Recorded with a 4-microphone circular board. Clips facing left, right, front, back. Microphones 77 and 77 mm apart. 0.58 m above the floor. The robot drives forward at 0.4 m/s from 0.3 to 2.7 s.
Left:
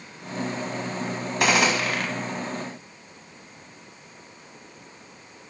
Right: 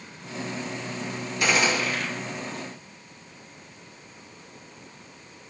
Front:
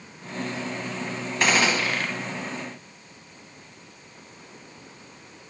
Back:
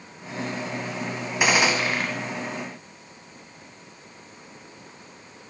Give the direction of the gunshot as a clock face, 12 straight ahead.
9 o'clock.